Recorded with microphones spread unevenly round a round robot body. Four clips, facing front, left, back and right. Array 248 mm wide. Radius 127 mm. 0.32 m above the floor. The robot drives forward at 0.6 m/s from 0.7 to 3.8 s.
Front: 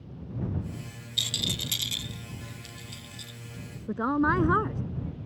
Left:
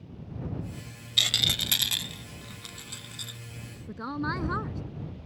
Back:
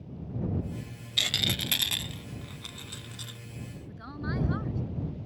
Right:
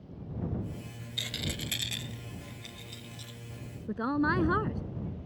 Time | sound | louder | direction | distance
1.2 | a rattle | left 4 dB, back 2 dB | 155° left | ?
3.9 | a woman speaking | right 4 dB, front 13 dB | 20° right | ?